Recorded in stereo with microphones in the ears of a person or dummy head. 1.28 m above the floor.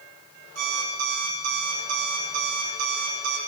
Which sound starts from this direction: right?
An alarm clock, at 0.6 s.